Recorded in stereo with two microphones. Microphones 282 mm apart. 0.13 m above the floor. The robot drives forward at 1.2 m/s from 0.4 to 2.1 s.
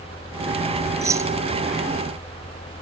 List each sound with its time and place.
1.0 s keys jangling: 10° right (ahead or behind), 1.0 m